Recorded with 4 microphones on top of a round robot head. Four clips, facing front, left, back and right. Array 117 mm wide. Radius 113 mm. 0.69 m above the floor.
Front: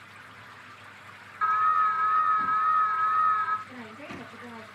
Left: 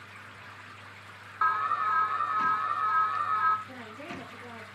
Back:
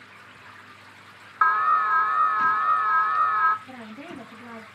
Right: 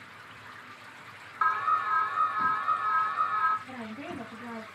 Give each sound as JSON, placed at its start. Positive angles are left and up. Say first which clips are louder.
{"t": 1.4, "sound": "an alarm", "louder": "even, back 3 dB", "azimuth_deg": 175, "distance_m": 1.1}
{"t": 3.7, "sound": "a woman speaking", "louder": "right 3 dB, back 2 dB", "azimuth_deg": -140, "distance_m": 5.0}